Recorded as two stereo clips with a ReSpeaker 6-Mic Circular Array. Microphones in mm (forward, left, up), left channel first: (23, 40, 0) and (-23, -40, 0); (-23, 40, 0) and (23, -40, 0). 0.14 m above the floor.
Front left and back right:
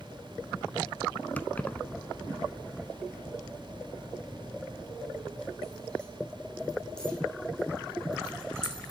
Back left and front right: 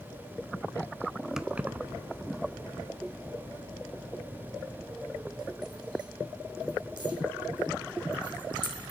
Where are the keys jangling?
15° left, 0.8 m; by 8.9 s 20° right, 6 m.